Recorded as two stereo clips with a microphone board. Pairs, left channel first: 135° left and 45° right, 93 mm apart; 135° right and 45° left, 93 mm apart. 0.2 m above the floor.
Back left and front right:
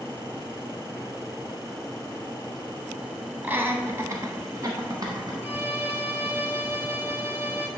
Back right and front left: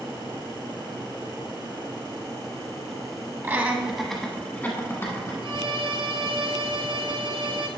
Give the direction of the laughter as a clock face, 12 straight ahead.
12 o'clock.